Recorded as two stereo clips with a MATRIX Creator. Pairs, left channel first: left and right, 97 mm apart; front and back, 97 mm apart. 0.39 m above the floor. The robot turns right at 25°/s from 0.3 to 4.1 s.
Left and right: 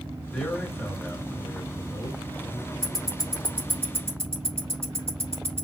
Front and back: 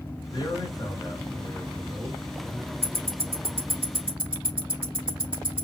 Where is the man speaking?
15° left, 2 m; by 2.7 s 75° left, 2 m.